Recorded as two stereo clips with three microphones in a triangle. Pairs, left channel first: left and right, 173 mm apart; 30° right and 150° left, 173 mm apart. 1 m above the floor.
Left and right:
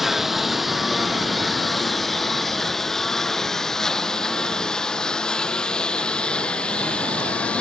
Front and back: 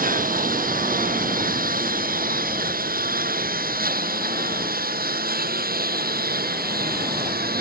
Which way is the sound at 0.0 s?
Straight behind.